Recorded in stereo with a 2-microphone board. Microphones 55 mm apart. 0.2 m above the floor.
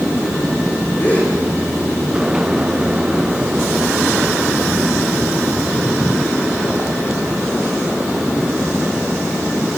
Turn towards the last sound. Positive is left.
turn(degrees=30)  # may be behind; listen again after turning